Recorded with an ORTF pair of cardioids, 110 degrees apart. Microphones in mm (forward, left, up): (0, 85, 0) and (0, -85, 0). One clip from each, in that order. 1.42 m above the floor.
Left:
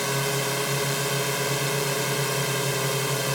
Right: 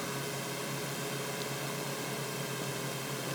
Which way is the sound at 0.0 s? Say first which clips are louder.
Left 12 dB; 70° left.